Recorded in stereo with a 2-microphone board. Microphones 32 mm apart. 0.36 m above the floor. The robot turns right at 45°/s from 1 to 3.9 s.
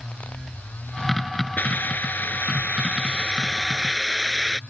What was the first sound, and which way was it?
A hiss, 70° left.